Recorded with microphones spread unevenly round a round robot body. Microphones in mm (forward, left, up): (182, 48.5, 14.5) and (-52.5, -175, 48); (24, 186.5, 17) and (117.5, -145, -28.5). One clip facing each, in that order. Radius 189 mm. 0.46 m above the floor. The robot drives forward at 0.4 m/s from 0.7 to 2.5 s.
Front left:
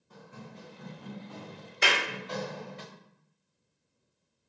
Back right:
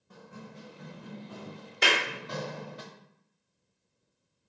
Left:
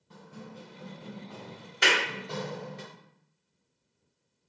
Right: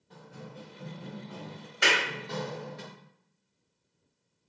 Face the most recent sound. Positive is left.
turn(degrees=175)